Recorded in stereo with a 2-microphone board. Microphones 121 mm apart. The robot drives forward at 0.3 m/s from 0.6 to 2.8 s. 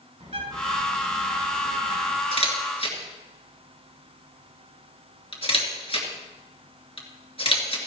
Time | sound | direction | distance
0.2 | a bird | 60° right (ahead or behind) | 2.5 m
2.3 | a camera shutter | 50° left (ahead or behind) | 2.5 m